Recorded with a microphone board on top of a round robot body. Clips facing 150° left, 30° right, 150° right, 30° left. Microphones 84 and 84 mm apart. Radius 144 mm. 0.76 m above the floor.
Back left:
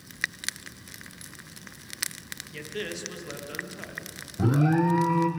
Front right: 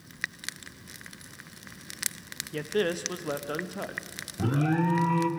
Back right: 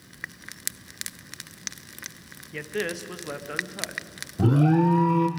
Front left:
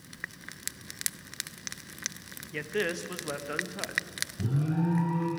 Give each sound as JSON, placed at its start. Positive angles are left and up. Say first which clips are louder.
{"t": 2.5, "sound": "a man speaking", "louder": "front right 8 dB, back right 1 dB", "azimuth_deg": -60, "distance_m": 0.8}
{"t": 4.4, "sound": "an alarm", "louder": "back left 3 dB, back right 10 dB", "azimuth_deg": -130, "distance_m": 0.6}